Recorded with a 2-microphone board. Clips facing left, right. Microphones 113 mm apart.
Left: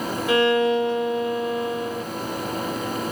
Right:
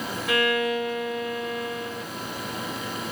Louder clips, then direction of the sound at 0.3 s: Left 6 dB; 30° left (ahead or behind).